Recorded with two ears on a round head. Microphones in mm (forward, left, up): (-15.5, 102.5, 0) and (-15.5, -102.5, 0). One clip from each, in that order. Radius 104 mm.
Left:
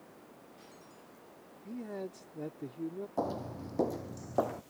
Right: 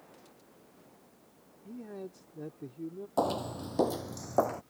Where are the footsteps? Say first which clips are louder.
Right 6 dB; 50° right (ahead or behind); by 4.6 s 25° right (ahead or behind).